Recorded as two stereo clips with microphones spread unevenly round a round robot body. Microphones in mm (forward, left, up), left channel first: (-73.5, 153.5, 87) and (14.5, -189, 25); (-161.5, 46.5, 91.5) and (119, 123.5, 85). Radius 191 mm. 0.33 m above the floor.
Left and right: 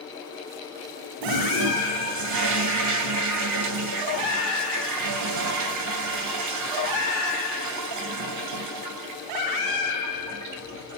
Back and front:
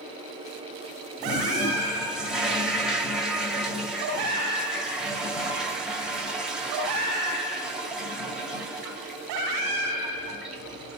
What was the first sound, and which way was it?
A toilet flushing, 70° right.